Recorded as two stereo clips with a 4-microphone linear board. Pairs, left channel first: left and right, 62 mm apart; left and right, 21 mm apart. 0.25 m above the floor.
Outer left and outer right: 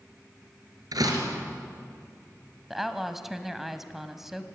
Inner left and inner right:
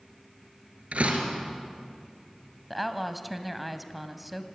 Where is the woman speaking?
5° right (ahead or behind), 1.6 m.